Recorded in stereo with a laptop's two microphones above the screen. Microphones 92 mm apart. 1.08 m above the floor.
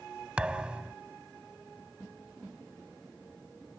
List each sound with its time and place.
0.4 s a thud: 10° right (ahead or behind)